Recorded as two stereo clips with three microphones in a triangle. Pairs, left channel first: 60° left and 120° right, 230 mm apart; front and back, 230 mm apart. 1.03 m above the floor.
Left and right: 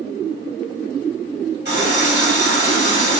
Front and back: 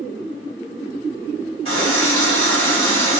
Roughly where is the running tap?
Behind right.